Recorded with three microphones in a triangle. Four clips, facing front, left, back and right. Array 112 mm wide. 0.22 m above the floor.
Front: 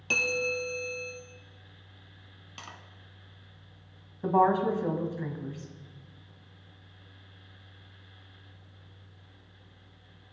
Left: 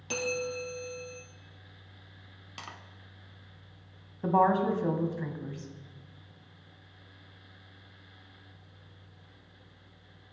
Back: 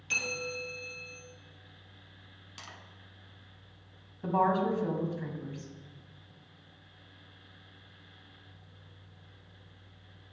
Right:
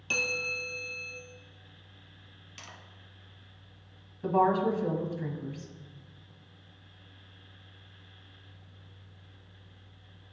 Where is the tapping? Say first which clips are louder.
Left 5 dB, front 3 dB; 65° left, 0.7 m.